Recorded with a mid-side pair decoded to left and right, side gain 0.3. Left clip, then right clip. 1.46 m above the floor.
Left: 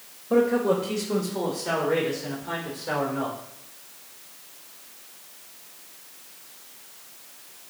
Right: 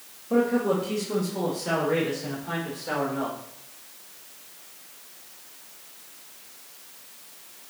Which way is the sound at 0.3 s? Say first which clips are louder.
Left 2 dB; 30° left.